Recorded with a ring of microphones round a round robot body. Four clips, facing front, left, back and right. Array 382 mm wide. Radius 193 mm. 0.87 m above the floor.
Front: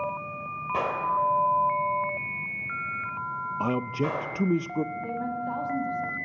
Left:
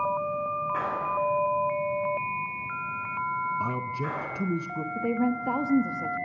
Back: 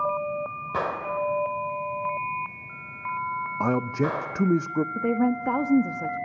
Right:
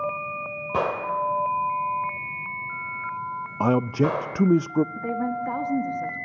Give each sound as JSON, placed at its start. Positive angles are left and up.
{"t": 0.7, "sound": "a gunshot", "azimuth_deg": -95, "distance_m": 3.0}
{"t": 3.6, "sound": "a man speaking", "azimuth_deg": -105, "distance_m": 0.5}
{"t": 5.0, "sound": "a woman speaking", "azimuth_deg": 165, "distance_m": 1.5}